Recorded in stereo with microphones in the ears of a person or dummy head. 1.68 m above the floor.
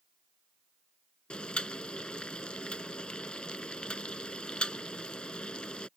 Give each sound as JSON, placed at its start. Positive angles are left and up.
{"t": 1.3, "sound": "boiling", "side_deg": 5}